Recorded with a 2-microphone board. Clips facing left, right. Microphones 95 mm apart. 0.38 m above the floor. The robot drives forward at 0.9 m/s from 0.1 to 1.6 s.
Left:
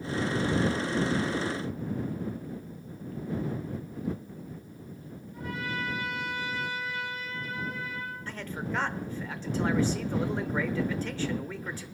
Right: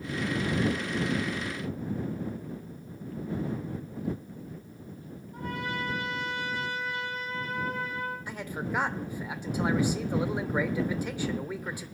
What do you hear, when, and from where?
5.3 s a trumpet: 65° right (ahead or behind), 5.5 m
8.3 s a man speaking: 15° right (ahead or behind), 0.8 m